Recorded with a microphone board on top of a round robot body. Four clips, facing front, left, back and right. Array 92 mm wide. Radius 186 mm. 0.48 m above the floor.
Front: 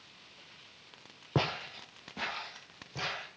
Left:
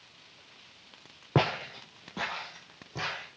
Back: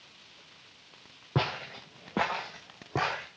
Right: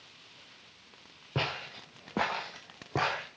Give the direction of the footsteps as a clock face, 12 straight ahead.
9 o'clock.